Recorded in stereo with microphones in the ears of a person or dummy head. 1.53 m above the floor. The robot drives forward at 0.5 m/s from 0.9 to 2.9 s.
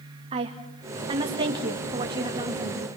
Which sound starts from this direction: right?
A woman speaking, at 0.3 s.